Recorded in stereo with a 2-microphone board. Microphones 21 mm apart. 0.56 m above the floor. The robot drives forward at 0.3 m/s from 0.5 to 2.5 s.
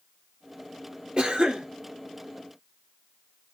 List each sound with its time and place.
1.2 s a cough: 55° right (ahead or behind), 1.1 m